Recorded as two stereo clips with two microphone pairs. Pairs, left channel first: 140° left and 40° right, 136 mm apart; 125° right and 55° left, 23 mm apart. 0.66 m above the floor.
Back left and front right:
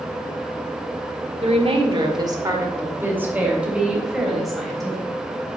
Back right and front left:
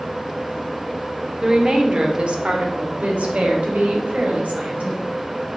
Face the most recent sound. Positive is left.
turn(degrees=50)